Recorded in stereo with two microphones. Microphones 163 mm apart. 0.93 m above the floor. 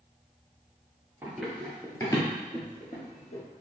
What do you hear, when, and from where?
1.2 s running footsteps: 15° right (ahead or behind), 0.9 m; by 3.4 s 55° left (ahead or behind), 1.5 m